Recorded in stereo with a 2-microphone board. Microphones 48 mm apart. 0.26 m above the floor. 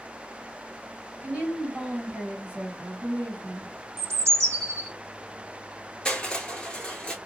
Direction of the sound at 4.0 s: 85° right.